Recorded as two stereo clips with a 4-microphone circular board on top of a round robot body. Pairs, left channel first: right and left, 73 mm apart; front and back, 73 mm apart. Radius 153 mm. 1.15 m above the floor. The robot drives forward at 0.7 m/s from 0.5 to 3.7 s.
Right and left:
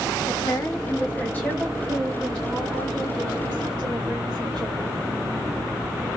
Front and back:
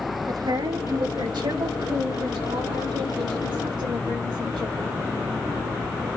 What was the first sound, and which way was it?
A woman speaking, 140° right.